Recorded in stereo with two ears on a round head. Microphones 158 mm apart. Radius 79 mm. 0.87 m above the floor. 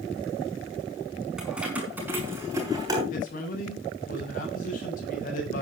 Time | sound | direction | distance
1.4 | keys jangling | 5° right (ahead or behind) | 5 m
3.1 | a man speaking | 45° left (ahead or behind) | 8 m